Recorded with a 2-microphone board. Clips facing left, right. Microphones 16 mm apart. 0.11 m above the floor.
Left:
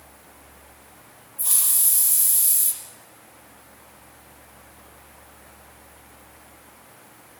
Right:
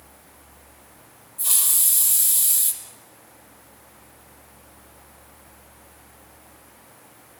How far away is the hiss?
About 3.5 m.